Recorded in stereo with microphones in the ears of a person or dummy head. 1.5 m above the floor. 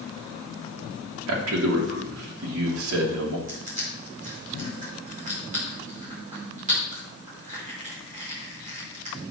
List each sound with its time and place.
1.3 s a man speaking: 85° right, 3 m
3.5 s crushing: 35° right (ahead or behind), 5 m